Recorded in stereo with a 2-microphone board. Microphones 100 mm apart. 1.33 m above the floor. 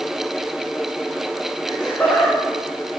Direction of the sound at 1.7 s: 15° left (ahead or behind).